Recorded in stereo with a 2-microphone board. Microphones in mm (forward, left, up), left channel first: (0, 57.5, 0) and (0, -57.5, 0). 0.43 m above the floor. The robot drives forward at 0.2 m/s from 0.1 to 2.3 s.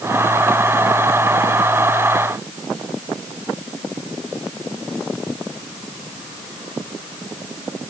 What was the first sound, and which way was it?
Only background noise.